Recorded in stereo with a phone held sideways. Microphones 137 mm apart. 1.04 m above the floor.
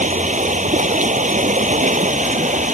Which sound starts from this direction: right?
Running water, at 0.0 s.